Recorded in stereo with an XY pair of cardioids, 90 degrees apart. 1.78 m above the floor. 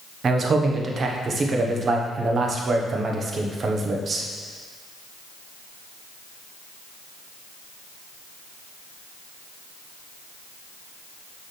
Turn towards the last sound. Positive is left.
turn(degrees=-45)